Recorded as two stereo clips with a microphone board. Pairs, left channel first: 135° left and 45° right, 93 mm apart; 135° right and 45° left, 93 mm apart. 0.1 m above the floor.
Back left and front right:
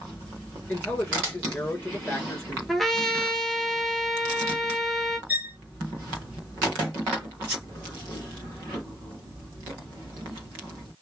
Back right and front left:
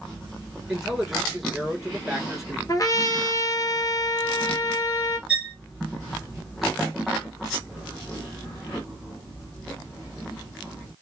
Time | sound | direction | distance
0.7 | a man speaking | 120° left | 1.6 m
2.7 | a trumpet | 140° right | 0.8 m
5.3 | a violin | 20° right | 1.6 m